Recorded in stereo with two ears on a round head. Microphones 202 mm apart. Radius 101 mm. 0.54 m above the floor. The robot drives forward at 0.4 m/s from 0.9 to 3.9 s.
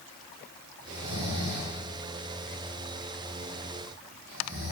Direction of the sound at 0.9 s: 75° right (ahead or behind).